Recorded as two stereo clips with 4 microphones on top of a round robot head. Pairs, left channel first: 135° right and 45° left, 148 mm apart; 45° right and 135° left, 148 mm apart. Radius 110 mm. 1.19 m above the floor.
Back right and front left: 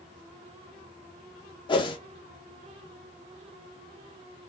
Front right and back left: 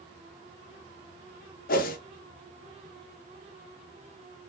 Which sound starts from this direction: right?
A whoosh, at 1.7 s.